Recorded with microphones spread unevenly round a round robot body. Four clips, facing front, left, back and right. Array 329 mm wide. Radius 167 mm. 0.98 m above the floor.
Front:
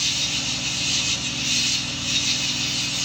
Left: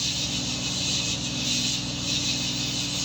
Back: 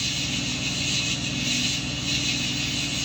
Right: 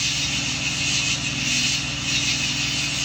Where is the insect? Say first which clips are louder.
Right 2 dB, back 1 dB; 125° left, 0.7 m.